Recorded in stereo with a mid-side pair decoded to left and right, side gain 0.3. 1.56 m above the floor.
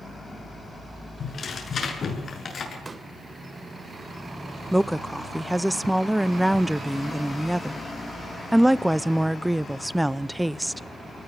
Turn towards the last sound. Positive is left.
turn(degrees=-10)